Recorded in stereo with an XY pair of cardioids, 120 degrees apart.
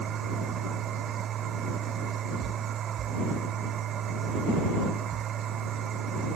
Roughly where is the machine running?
Ahead right.